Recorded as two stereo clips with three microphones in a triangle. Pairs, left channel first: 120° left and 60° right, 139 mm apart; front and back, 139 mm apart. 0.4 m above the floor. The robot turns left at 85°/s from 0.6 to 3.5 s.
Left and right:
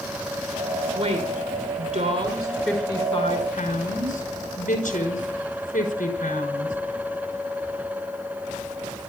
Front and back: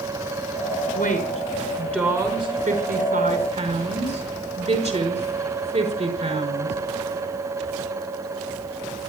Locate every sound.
0.9 s a woman speaking: straight ahead, 4.5 m; by 6.8 s 145° left, 4.5 m